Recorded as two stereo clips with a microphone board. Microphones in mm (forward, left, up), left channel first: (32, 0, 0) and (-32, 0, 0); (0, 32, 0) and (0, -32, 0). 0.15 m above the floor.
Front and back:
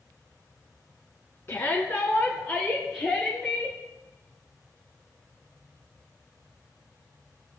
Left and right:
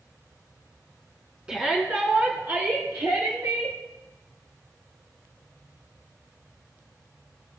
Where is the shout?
25° right, 1.5 m; by 3.8 s 80° right, 2.5 m.